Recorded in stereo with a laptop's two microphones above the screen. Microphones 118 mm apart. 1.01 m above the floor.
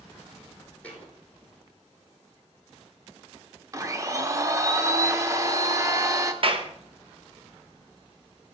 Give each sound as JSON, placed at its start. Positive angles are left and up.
{"t": 0.8, "sound": "a thud", "side_deg": 10, "distance_m": 2.5}
{"t": 3.7, "sound": "a blender", "side_deg": -25, "distance_m": 0.6}
{"t": 6.4, "sound": "a clap", "side_deg": -50, "distance_m": 0.9}